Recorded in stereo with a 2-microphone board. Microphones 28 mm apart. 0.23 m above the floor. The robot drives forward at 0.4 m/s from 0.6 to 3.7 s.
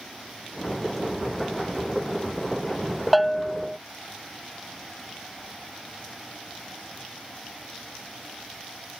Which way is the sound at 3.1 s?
5° left (ahead or behind).